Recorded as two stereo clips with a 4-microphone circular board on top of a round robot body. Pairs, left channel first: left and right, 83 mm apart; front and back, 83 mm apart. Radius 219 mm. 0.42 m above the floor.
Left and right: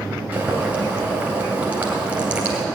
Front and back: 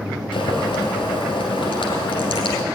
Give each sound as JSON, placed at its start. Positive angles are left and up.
{"t": 0.3, "sound": "boiling", "azimuth_deg": -15, "distance_m": 2.5}